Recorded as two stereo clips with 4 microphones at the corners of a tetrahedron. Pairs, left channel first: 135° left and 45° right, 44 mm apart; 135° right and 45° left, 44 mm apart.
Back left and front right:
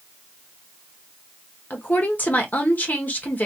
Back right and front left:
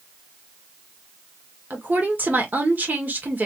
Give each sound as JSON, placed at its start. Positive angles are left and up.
{"t": 1.7, "sound": "a woman speaking", "azimuth_deg": 85, "distance_m": 1.2}